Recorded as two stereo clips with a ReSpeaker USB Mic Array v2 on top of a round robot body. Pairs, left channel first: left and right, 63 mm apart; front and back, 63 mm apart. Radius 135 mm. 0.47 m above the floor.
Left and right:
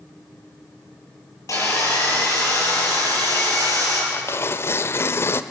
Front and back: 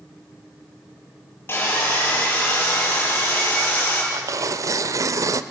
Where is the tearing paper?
140° left, 0.6 m.